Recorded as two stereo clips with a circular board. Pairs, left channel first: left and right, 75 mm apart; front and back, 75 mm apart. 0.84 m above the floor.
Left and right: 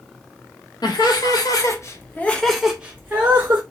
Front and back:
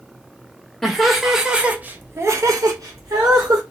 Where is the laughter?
85° left, 1.2 m; by 3.6 s 145° right, 1.1 m.